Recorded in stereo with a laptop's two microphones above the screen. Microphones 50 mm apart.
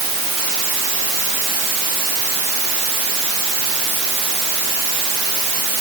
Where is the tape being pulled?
No tape being pulled in this recording.